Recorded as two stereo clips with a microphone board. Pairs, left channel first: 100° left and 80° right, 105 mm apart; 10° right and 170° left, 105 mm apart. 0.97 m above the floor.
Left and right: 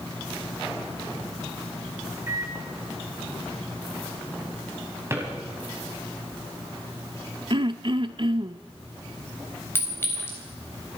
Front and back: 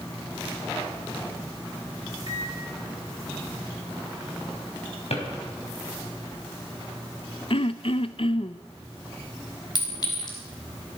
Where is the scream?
No scream in this recording.